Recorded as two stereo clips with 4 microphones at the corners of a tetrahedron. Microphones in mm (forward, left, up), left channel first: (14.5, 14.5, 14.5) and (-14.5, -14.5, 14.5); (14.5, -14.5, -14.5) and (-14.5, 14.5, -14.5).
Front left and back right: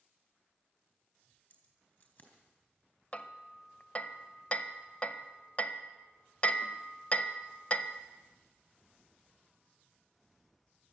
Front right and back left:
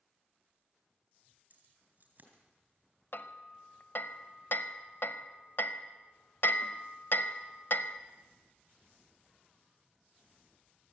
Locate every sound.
1.5 s keys jangling: 90° left, 3.5 m
3.1 s hammering: 10° right, 0.7 m